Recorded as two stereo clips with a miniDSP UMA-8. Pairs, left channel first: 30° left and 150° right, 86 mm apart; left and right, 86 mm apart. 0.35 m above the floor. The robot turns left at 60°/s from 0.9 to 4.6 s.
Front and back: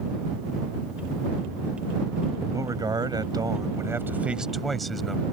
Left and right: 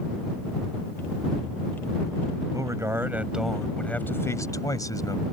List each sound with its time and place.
2.5 s a man speaking: 115° right; by 5.2 s 120° left